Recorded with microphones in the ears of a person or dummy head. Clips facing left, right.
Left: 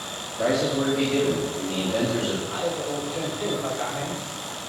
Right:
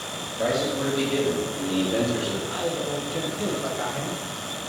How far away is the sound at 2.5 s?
About 1.4 m.